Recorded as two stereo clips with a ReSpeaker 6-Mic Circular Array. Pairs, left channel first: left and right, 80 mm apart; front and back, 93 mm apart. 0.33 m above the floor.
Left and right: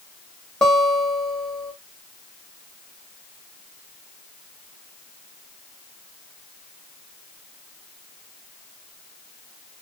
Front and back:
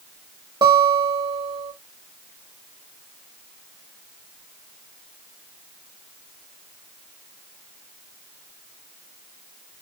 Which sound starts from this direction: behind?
A guitar, at 0.6 s.